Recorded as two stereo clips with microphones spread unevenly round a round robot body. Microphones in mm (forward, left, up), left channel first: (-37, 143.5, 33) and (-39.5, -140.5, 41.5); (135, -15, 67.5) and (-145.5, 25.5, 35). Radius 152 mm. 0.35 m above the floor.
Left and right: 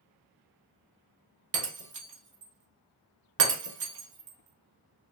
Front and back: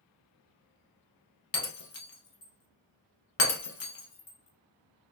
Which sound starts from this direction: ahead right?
Breaking glass, at 1.5 s.